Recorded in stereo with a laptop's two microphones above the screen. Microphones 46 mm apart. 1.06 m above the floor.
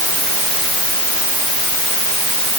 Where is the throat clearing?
I don't hear throat clearing.